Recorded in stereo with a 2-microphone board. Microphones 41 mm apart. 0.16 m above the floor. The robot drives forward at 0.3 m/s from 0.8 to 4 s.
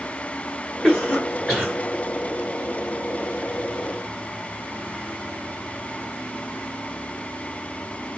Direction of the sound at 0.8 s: 5° left (ahead or behind).